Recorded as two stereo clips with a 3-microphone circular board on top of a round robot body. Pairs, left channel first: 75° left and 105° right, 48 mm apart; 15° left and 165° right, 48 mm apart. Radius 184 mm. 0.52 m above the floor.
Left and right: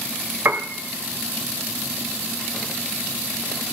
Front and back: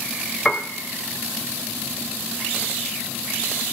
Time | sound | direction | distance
0.5 | a piano | 60° right | 0.6 m